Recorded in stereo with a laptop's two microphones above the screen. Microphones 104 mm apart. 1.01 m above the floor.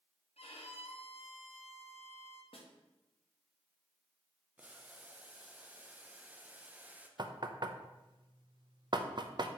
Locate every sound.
0.4 s a violin: 70° left (ahead or behind), 0.9 m
2.5 s a snare drum: 60° left (ahead or behind), 1.2 m
4.6 s boiling: 15° right (ahead or behind), 0.6 m
7.2 s knocking: 45° right (ahead or behind), 0.5 m